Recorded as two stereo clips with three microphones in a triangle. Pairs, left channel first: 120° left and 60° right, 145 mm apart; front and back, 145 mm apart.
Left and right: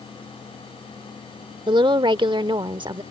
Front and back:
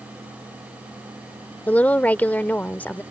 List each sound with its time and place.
1.7 s a woman speaking: 70° right